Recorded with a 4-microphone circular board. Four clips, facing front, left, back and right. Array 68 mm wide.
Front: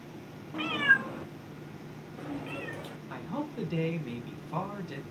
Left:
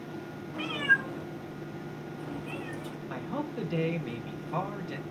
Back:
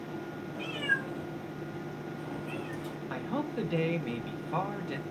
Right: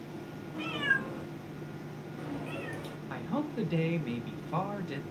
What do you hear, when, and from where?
0.5 s a cat meowing: 20° left, 0.6 m; by 3.0 s 20° right, 2 m
3.1 s a man speaking: 170° right, 0.9 m